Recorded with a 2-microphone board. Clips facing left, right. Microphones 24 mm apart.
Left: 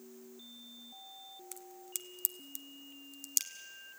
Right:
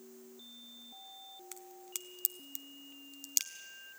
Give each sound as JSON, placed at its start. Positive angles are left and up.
{"t": 1.5, "sound": "a crack", "side_deg": -15, "distance_m": 1.0}